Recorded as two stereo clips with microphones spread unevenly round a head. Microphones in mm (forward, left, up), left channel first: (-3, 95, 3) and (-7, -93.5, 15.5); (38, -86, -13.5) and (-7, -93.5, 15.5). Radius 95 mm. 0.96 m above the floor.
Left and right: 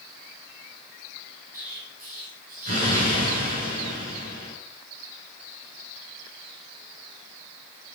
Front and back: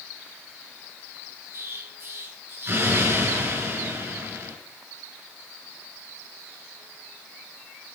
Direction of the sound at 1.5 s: 140° right.